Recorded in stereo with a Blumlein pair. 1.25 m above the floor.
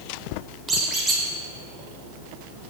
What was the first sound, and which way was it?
A squeak, 20° right.